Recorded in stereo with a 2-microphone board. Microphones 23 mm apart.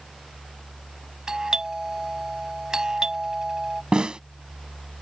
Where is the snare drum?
40° right (ahead or behind).